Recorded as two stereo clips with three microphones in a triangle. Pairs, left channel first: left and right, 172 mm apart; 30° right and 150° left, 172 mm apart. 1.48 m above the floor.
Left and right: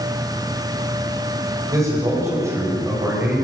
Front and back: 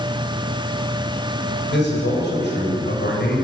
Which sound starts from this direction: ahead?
A man speaking, at 1.7 s.